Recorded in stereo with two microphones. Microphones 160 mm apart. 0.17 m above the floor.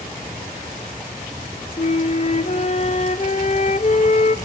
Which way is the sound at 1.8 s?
45° left (ahead or behind).